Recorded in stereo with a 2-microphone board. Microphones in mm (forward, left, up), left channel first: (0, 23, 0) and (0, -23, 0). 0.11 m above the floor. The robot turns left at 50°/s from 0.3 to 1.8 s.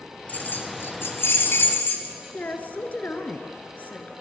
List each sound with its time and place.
0.3 s keys jangling: 35° left (ahead or behind), 1.5 m; by 2.1 s 45° left (ahead or behind), 1.5 m
2.3 s a woman speaking: 35° left (ahead or behind), 1.3 m